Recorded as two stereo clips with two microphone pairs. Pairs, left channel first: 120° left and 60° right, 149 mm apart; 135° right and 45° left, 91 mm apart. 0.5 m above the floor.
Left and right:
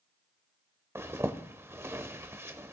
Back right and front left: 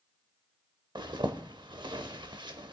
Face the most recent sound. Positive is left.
turn(degrees=15)